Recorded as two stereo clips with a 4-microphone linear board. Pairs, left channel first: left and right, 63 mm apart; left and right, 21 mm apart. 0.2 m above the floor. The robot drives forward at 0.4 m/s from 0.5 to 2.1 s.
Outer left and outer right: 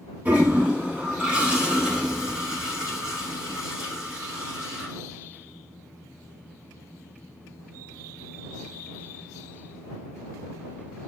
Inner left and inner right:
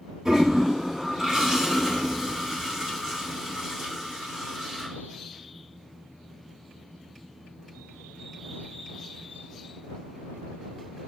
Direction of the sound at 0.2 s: 25° right (ahead or behind).